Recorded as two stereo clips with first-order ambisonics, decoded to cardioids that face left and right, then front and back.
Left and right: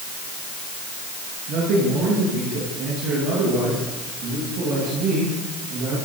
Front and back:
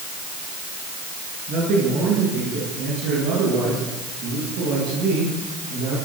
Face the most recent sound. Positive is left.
turn(degrees=-140)